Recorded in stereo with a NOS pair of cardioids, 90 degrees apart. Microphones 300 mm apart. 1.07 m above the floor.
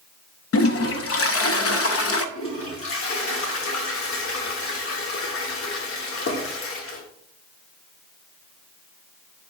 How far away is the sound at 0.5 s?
About 0.8 m.